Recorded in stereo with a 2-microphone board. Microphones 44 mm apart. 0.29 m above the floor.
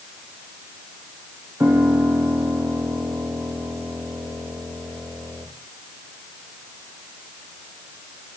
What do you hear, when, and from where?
1.6 s a piano: 65° right (ahead or behind), 9.5 m